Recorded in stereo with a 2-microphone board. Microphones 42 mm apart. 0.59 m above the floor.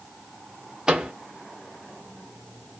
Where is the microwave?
20° right (ahead or behind), 0.8 m.